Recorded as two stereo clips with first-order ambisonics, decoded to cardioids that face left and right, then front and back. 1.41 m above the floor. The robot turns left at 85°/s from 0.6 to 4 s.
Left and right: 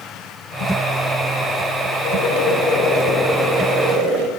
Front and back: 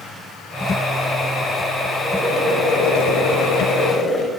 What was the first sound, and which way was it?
Boiling, 105° left.